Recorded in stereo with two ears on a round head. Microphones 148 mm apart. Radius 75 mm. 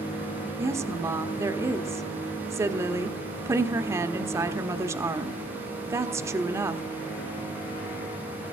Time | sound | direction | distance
0.6 | a woman speaking | 15° right (ahead or behind) | 0.9 m